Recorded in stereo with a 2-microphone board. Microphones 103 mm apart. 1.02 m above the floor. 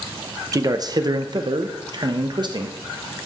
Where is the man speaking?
35° right (ahead or behind), 0.9 m; by 2.8 s 45° right (ahead or behind), 1.4 m.